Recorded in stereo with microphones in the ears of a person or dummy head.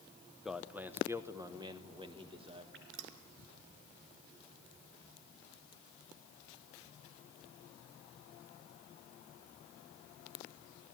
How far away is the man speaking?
About 0.9 m.